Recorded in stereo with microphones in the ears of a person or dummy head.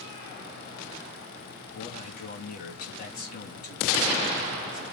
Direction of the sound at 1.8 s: 50° left (ahead or behind).